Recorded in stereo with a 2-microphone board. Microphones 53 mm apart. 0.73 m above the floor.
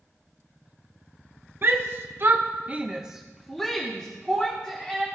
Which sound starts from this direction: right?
A shout, at 1.6 s.